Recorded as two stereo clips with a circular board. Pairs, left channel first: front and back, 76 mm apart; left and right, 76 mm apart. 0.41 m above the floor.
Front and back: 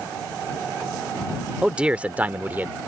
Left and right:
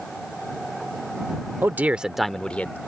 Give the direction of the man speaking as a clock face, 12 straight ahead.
4 o'clock.